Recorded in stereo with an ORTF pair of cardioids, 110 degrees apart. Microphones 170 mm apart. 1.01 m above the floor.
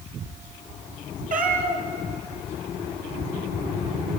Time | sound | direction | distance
1.3 | a cat meowing | 50° right | 4 m